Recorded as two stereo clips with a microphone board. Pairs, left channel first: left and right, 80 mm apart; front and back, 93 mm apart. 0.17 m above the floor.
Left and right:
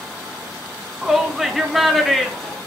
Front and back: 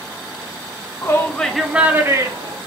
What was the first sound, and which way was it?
A shout, 5° right.